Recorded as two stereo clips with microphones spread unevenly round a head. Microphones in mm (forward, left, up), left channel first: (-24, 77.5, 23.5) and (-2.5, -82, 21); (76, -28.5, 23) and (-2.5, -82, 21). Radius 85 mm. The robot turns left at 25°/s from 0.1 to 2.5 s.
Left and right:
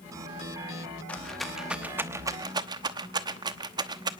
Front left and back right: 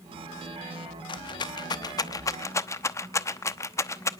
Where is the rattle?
20° left, 0.8 m; by 4.1 s 15° right, 0.8 m.